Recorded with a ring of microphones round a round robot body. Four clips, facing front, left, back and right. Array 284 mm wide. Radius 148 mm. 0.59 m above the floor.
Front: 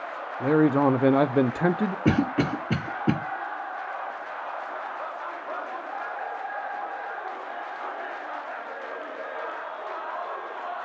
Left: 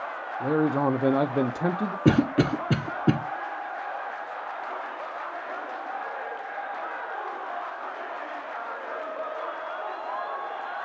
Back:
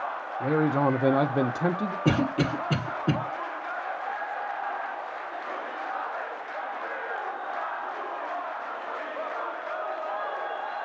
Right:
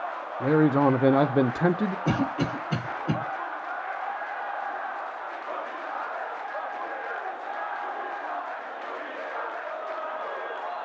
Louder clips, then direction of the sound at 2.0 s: Left 9 dB, front 1 dB; 75° left.